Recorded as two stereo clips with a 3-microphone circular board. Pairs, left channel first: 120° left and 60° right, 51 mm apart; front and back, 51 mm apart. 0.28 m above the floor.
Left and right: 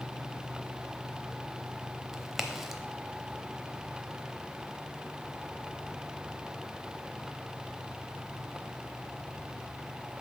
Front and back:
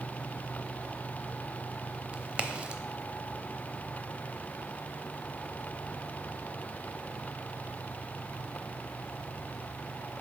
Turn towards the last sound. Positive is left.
turn(degrees=-135)